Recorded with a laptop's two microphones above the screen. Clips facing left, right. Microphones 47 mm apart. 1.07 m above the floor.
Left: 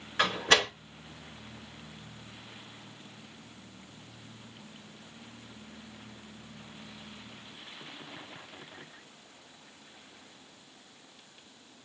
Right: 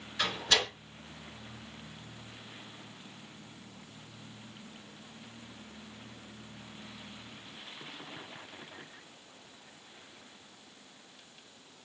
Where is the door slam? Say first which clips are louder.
Left 5 dB; 50° left (ahead or behind), 3.5 m.